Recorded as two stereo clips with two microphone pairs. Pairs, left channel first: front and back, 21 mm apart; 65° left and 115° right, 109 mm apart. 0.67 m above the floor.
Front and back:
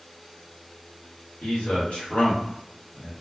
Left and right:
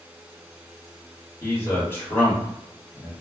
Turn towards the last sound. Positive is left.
turn(degrees=-5)